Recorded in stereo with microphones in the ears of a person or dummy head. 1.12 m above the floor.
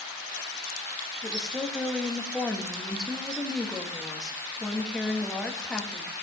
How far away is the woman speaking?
About 1.3 m.